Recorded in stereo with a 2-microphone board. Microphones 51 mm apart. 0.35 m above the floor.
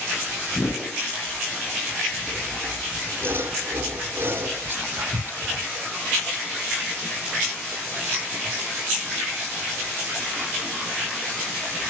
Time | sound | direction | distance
0.5 | a whoosh | 65° left (ahead or behind) | 9 m
2.3 | sawing | 45° right (ahead or behind) | 3.5 m
4.7 | whispering | 50° right (ahead or behind) | 1.3 m